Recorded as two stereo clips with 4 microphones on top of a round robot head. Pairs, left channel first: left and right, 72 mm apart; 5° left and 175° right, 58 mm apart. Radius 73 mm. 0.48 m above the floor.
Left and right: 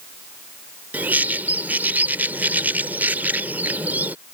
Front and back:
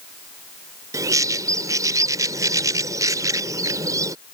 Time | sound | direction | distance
0.9 | a bird | 160° right | ?